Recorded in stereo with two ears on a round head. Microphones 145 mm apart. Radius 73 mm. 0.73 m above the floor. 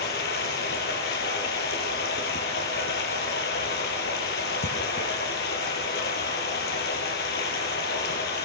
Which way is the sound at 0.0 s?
70° left (ahead or behind).